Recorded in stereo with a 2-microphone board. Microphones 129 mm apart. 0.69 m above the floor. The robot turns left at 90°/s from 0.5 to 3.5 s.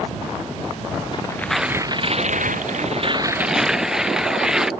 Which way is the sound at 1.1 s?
40° left.